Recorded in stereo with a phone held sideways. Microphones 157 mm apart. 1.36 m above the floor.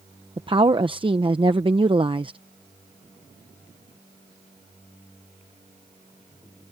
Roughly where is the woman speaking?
Right.